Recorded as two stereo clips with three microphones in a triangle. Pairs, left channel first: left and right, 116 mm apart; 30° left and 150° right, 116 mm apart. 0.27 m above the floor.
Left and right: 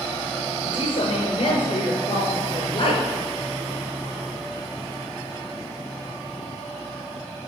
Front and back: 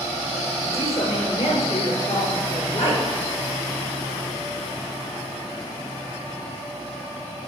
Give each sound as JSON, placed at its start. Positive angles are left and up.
{"t": 0.6, "sound": "a woman speaking", "azimuth_deg": 45, "distance_m": 6.0}